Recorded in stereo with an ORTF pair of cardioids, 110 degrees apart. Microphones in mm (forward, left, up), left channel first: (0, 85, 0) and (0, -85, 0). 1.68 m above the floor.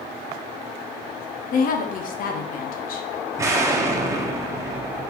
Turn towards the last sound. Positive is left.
turn(degrees=-20)